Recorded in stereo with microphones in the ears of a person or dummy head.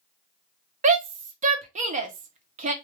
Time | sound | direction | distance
0.8 | a shout | 40° right (ahead or behind) | 0.6 m